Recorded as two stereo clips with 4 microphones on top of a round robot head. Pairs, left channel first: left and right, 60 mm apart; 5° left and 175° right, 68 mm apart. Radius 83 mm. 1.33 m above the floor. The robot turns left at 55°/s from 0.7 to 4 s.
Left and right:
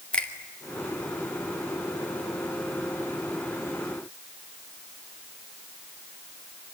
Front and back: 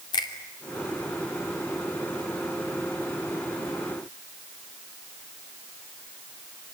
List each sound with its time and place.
0.1 s a finger snap: 20° left, 2.5 m